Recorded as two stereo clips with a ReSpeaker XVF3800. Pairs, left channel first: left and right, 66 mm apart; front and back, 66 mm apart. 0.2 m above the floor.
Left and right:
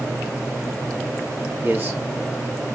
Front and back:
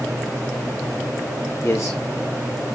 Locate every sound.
1.6 s a man speaking: 35° right, 5.5 m